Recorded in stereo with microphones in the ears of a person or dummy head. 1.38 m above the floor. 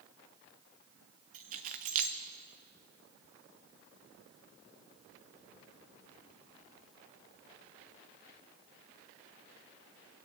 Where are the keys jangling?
40° right (ahead or behind), 0.7 m.